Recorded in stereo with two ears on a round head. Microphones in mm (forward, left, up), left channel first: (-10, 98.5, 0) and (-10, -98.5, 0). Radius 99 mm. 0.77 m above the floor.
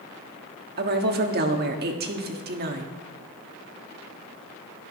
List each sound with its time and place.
0.8 s a woman speaking: 45° right (ahead or behind), 1.4 m